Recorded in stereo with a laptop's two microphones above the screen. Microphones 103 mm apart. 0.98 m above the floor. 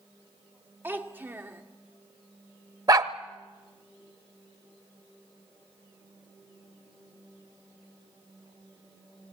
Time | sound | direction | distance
0.8 | a child speaking | 20° right (ahead or behind) | 2 m
2.9 | a dog barking | 40° right (ahead or behind) | 0.9 m